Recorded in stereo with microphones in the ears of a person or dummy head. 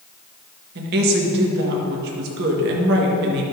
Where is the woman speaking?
65° right (ahead or behind), 1.4 m.